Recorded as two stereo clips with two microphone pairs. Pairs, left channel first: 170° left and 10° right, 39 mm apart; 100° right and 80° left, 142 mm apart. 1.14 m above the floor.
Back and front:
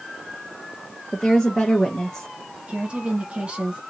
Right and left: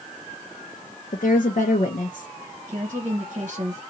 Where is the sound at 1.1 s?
110° right, 0.8 m.